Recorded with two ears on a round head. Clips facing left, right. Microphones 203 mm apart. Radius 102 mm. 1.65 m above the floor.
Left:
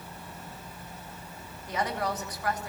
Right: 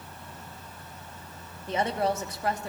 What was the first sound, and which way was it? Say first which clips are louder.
A woman speaking: right 4 dB; 25° right (ahead or behind).